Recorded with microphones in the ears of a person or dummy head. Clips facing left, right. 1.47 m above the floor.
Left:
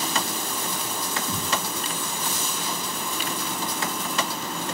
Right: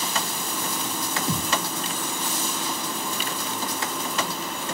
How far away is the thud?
About 0.9 m.